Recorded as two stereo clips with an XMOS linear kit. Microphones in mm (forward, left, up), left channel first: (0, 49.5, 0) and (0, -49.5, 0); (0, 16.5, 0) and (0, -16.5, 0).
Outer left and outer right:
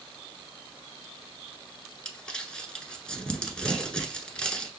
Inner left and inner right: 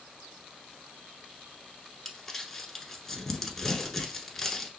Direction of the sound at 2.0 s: 10° left (ahead or behind).